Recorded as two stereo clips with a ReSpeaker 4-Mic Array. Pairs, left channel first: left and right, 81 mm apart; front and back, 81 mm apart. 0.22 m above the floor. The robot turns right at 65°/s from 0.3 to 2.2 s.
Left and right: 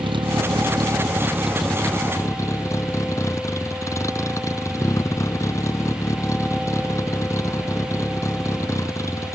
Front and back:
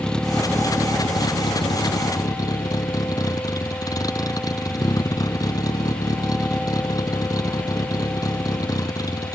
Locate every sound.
0.0 s a vehicle: 85° right; by 9.4 s 40° left